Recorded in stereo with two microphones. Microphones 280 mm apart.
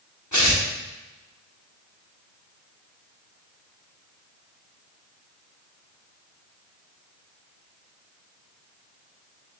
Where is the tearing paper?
85° left, 4.5 m.